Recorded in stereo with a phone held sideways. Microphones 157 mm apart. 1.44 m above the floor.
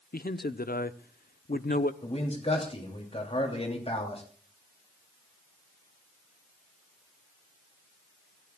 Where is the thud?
No thud in this recording.